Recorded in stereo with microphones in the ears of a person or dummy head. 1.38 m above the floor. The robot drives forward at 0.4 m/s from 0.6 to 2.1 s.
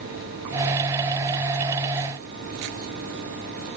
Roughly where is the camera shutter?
I don't hear a camera shutter.